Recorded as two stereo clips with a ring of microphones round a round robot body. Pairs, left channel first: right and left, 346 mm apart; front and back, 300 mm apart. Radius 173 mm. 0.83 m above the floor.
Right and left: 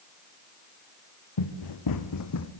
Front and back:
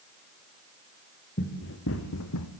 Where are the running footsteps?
65° right, 3 m; by 2.5 s 40° right, 1.8 m.